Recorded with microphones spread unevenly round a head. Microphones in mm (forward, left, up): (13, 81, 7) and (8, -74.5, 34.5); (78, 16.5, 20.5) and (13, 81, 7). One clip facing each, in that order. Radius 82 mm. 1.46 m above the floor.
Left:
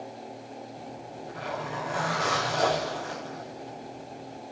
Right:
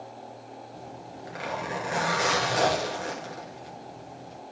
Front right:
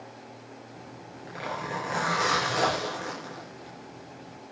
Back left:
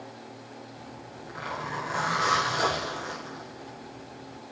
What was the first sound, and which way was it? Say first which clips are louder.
A zipper: left 1 dB, back left 1 dB; 80° right.